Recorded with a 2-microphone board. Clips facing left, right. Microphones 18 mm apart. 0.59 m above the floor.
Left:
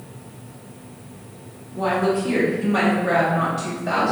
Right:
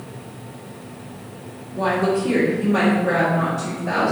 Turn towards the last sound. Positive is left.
turn(degrees=35)  # may be behind; listen again after turning